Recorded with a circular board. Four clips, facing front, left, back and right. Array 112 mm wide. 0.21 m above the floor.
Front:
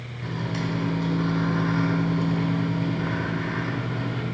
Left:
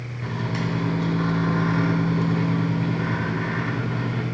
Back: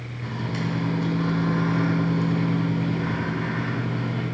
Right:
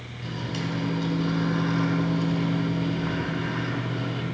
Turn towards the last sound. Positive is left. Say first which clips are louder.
# left 4 dB, even
turn(degrees=95)